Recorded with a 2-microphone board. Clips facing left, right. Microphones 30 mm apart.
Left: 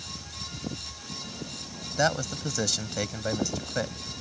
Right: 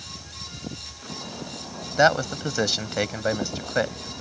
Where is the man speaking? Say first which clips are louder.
Right 7 dB; 30° right (ahead or behind).